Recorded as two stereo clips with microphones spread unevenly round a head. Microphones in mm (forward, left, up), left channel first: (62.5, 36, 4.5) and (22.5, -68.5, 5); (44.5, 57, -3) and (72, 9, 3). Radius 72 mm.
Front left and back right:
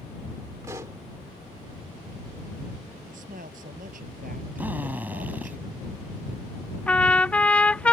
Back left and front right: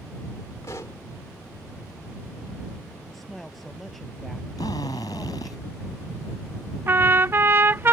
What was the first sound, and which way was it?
A pop, straight behind.